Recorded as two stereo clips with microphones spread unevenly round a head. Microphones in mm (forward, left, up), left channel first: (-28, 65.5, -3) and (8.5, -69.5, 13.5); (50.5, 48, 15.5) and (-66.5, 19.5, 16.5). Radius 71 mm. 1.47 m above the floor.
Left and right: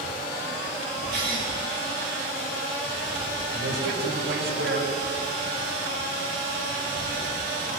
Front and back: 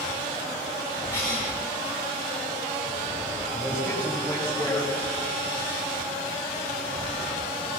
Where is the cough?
85° right, 6 m.